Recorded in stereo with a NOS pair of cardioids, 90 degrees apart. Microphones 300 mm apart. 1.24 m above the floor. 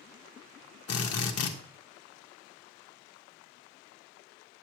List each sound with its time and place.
0.9 s a drill: 55° left, 1.4 m